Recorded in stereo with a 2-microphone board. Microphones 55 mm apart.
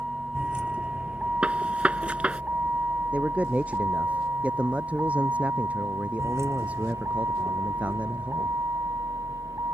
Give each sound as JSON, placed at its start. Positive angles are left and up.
{"t": 0.0, "sound": "a vehicle", "side_deg": -20}
{"t": 1.4, "sound": "a gunshot", "side_deg": -25}
{"t": 3.1, "sound": "a man speaking", "side_deg": -25}